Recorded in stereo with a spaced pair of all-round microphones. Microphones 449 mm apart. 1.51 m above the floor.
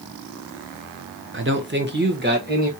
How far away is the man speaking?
About 0.7 m.